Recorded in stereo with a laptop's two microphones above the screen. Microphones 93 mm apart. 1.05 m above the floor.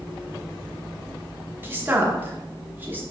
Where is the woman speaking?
20° right (ahead or behind), 0.8 m.